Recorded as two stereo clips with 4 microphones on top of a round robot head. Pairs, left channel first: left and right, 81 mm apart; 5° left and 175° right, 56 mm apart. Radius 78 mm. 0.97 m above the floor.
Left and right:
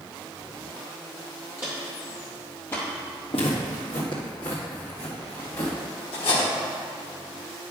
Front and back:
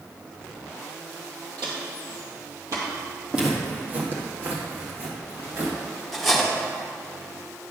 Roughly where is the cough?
No cough in this recording.